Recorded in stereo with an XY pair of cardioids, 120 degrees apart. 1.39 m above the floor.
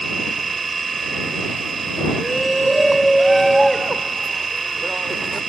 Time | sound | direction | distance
0.0 | a machine running | 25° right | ?
2.2 | a shout | 5° right | ?